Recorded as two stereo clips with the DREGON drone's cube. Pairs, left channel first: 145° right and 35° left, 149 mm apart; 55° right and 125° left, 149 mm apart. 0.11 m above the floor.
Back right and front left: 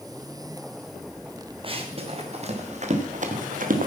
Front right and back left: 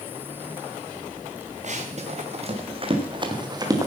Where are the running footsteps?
85° left, 3.5 m; by 3.9 s 55° left, 2.5 m.